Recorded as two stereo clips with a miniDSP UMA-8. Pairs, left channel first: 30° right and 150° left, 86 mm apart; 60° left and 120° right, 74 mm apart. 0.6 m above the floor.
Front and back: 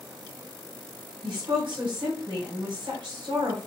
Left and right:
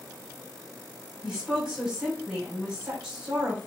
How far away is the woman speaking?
About 1.9 m.